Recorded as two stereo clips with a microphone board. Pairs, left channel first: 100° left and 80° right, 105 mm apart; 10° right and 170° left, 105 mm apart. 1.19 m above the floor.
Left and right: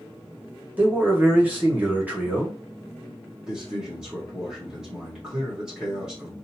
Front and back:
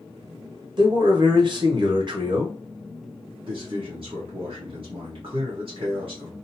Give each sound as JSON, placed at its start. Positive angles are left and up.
{"t": 0.8, "sound": "a man speaking", "azimuth_deg": -150, "distance_m": 1.1}
{"t": 3.5, "sound": "a man speaking", "azimuth_deg": -160, "distance_m": 1.1}